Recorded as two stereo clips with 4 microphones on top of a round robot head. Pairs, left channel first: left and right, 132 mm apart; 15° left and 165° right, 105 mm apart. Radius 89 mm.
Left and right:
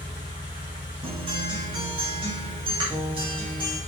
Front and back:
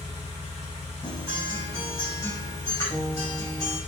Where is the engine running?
35° left, 1.4 m.